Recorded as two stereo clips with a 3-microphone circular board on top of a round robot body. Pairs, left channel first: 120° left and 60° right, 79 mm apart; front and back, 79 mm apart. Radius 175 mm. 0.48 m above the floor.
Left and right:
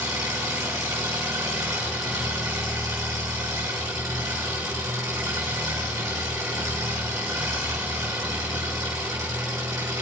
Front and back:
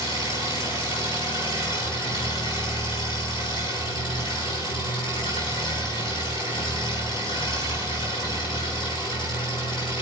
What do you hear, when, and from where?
0.0 s an engine running: 15° right, 6 m